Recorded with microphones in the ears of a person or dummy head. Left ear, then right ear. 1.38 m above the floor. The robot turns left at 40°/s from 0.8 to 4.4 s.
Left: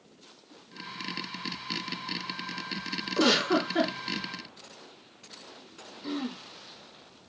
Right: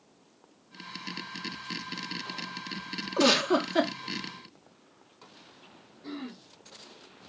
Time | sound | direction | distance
3.2 | a giggle | 10° right | 0.7 m
6.0 | throat clearing | 55° left (ahead or behind) | 1.3 m